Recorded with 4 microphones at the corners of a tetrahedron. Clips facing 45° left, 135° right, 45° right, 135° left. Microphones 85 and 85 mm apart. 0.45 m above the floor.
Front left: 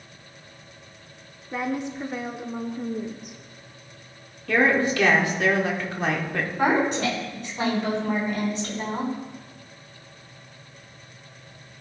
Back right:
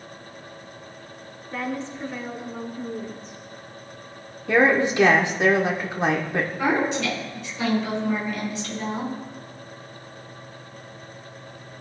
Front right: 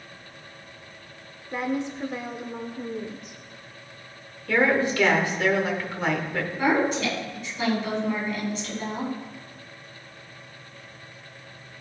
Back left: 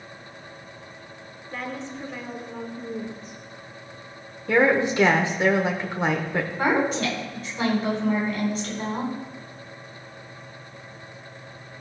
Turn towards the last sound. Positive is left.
turn(degrees=85)